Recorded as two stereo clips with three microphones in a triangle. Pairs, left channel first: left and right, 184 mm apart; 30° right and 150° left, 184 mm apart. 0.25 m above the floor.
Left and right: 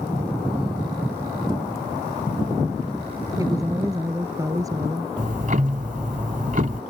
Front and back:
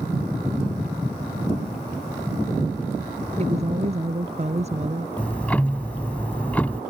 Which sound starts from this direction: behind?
A woman speaking, at 3.4 s.